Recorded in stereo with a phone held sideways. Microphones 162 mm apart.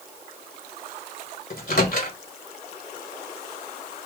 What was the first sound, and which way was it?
A microwave, 60° left (ahead or behind).